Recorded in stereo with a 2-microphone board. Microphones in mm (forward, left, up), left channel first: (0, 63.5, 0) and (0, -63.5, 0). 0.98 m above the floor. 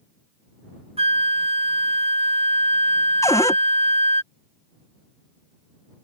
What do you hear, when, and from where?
1.0 s a flute: 50° right (ahead or behind)
3.2 s a cupboard door: 25° left (ahead or behind)